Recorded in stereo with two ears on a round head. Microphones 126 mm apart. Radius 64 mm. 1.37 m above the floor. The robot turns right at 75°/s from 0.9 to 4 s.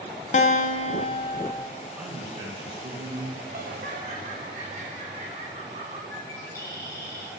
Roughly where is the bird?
Centre.